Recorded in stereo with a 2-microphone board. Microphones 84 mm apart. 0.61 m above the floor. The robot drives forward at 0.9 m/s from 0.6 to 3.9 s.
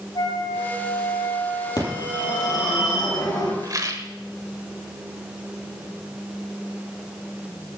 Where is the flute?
60° left (ahead or behind), 7 m; by 2.8 s 75° left (ahead or behind), 6 m.